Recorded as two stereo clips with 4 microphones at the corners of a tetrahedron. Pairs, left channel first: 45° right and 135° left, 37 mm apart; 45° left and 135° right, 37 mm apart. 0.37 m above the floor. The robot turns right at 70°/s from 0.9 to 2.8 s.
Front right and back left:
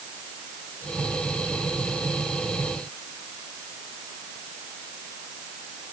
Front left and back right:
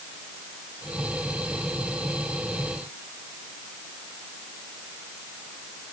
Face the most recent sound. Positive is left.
No sound to turn to.